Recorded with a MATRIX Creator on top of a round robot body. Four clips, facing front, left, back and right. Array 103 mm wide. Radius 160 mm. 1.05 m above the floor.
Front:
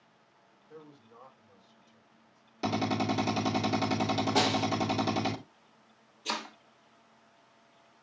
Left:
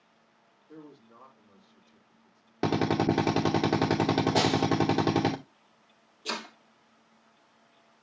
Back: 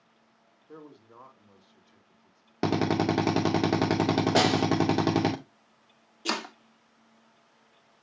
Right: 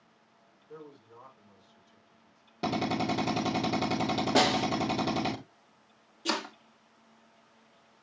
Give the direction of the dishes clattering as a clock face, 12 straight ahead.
I don't hear dishes clattering.